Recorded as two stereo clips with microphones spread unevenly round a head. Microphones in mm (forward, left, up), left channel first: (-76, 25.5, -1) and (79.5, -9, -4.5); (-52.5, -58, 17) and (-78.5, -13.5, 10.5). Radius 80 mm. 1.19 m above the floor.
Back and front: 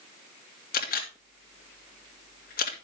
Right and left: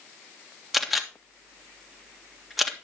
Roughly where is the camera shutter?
Behind right.